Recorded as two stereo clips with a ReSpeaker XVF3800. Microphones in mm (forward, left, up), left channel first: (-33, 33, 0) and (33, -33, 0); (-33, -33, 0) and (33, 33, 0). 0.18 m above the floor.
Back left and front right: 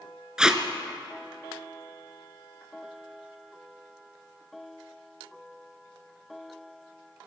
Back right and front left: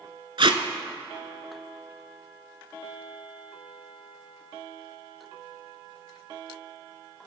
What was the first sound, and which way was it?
Tape being pulled, 35° left.